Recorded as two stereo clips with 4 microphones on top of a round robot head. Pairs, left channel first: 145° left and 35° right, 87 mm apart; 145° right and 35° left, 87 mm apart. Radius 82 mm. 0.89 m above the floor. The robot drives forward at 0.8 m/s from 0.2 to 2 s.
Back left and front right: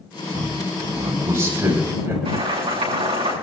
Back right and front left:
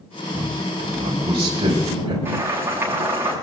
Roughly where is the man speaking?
Ahead.